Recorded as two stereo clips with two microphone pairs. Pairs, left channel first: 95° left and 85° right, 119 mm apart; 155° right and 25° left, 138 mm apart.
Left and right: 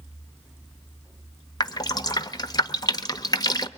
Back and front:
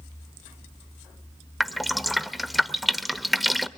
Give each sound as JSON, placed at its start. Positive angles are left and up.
{"t": 1.6, "sound": "dripping", "azimuth_deg": 115, "distance_m": 0.8}